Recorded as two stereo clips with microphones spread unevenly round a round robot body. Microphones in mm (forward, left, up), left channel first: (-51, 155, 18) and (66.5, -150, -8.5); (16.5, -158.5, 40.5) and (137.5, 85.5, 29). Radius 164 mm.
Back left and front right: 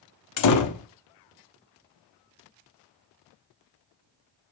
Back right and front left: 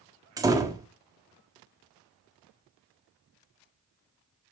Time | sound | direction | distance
0.4 | a door slam | 140° left | 1.1 m